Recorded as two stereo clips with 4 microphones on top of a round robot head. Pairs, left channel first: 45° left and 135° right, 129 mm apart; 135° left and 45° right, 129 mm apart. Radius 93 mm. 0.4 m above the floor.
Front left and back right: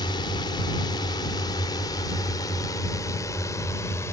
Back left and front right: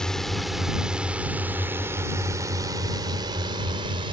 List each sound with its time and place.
0.0 s a drone: 50° left; by 4.1 s 15° right